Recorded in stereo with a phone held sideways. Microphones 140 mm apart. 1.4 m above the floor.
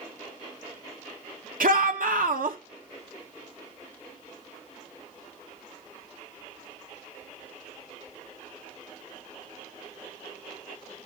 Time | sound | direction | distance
1.6 | a shout | 80° right | 2.5 m